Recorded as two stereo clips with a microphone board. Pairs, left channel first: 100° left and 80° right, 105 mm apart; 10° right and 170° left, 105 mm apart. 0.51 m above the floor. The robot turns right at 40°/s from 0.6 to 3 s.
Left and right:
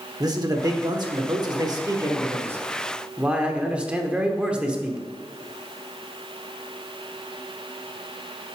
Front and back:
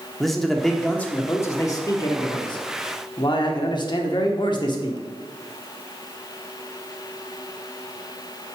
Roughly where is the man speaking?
Right.